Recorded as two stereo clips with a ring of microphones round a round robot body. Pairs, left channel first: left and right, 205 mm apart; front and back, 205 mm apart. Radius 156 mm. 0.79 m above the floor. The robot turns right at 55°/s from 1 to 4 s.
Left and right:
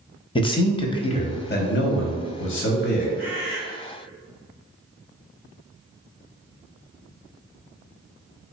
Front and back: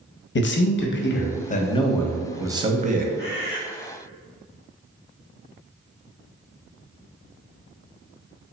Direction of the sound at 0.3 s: 25° left.